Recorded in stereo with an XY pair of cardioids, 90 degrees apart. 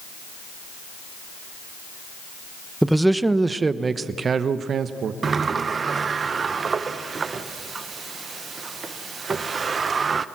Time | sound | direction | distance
2.8 | a man speaking | 5° right | 1.0 m
5.2 | a sliding door | 45° right | 0.9 m